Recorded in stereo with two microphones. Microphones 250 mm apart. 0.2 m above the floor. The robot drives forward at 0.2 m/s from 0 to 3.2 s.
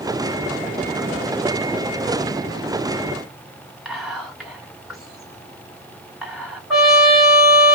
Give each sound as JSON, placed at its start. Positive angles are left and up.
{"t": 3.9, "sound": "whispering", "side_deg": 0, "distance_m": 1.9}
{"t": 6.7, "sound": "a trumpet", "side_deg": 0, "distance_m": 2.5}